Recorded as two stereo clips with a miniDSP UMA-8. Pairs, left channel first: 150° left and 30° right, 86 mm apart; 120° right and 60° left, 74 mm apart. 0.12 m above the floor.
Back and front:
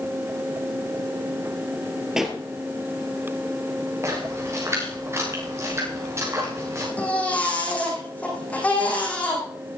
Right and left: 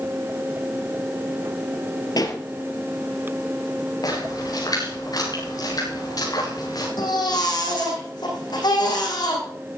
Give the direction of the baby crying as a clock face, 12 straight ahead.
5 o'clock.